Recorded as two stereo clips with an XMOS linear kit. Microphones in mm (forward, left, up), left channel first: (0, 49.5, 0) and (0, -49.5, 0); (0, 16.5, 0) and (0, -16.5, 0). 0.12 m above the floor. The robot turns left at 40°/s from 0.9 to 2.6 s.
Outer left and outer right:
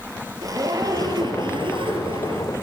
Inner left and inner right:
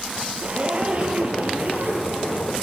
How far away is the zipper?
About 1.7 m.